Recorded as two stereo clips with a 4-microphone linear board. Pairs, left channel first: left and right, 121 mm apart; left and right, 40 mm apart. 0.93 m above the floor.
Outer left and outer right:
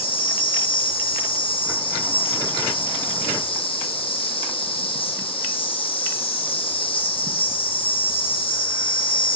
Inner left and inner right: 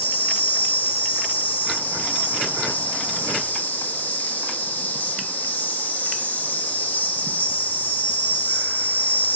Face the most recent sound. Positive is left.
turn(degrees=45)  # may be behind; listen again after turning